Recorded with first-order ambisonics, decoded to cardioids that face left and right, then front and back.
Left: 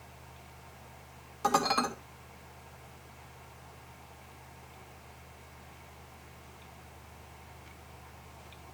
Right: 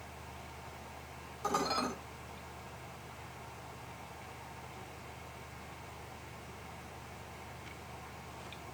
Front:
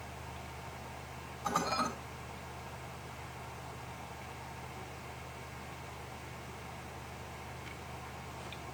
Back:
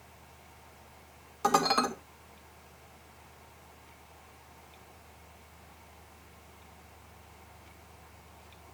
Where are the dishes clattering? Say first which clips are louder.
Left 6 dB, back 7 dB; 155° left, 3 m.